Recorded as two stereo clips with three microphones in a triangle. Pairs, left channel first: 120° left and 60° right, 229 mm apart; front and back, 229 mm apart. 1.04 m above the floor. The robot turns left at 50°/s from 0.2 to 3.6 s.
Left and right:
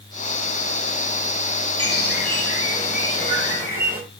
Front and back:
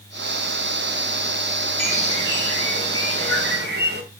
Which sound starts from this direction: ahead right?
A bird, at 1.8 s.